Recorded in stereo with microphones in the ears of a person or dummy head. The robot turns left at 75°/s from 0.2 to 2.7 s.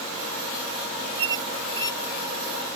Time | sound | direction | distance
1.2 | a squeak | 30° right (ahead or behind) | ?